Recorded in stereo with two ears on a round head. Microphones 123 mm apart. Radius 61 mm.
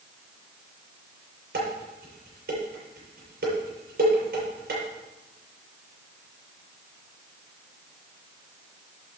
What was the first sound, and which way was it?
Dishes clattering, 75° right (ahead or behind).